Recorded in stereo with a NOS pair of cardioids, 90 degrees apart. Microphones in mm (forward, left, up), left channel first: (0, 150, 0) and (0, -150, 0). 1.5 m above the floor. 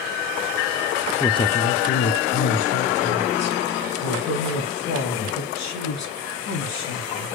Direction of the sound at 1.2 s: 10° left.